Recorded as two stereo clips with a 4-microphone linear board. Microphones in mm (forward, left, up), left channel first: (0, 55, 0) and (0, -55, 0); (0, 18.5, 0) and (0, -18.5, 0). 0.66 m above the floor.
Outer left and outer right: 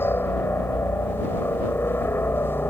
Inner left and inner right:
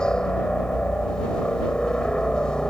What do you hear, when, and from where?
0.0 s a helicopter: 20° left (ahead or behind)